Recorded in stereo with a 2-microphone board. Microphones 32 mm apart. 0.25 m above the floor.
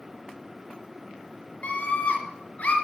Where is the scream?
50° left (ahead or behind), 3 m.